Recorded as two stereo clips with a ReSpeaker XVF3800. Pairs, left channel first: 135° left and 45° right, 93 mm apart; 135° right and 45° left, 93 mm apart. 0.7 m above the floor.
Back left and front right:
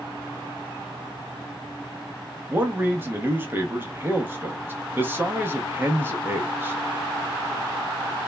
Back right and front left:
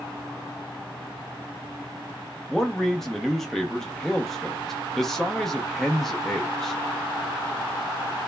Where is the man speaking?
55° right, 0.6 m.